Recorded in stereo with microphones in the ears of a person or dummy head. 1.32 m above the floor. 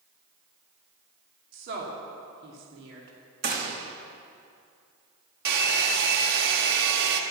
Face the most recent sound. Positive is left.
turn(degrees=-60)  # may be behind; listen again after turning